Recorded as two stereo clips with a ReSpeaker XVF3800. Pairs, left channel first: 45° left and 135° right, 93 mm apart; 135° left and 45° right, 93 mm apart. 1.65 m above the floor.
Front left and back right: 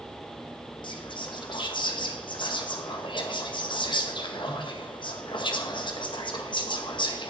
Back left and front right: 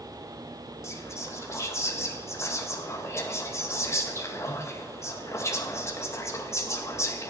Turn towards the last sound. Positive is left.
turn(degrees=75)